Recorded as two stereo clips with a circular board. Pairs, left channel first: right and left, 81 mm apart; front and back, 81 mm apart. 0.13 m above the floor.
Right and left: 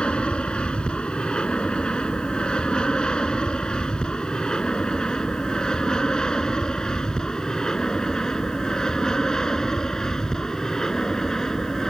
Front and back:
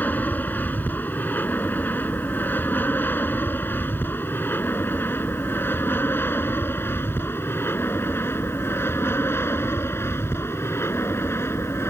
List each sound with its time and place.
0.0 s an aircraft: 30° right; by 11.9 s 10° right